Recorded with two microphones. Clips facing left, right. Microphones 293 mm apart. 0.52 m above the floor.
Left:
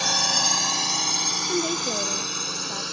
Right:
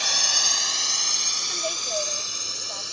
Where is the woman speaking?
55° left (ahead or behind).